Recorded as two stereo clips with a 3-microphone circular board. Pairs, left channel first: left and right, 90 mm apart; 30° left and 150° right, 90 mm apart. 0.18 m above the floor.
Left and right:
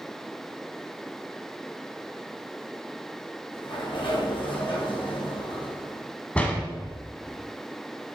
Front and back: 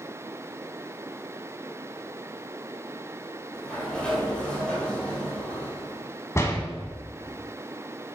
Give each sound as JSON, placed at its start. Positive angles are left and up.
{"t": 3.5, "sound": "a sliding door", "azimuth_deg": 110, "distance_m": 1.9}
{"t": 6.3, "sound": "a door slam", "azimuth_deg": 30, "distance_m": 0.9}